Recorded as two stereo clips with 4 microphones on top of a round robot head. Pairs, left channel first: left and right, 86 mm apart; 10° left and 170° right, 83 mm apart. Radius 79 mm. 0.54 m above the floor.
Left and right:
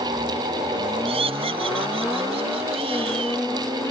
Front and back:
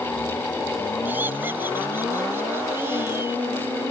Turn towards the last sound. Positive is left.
turn(degrees=-105)